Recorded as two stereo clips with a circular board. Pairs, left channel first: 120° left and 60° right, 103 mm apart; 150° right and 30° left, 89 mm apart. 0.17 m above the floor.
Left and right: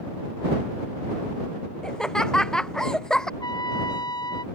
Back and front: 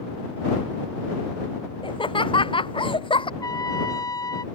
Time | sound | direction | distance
1.8 | laughter | 160° right | ?
3.4 | a trumpet | 165° left | ?